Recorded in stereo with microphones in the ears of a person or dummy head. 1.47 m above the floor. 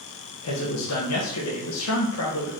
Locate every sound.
0.4 s a man speaking: 80° left, 1.1 m